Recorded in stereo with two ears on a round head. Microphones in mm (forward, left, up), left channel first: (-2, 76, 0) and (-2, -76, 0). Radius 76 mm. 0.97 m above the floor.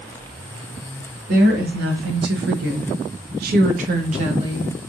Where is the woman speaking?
60° right (ahead or behind), 1.5 m; by 4.7 s 25° right (ahead or behind), 1.0 m.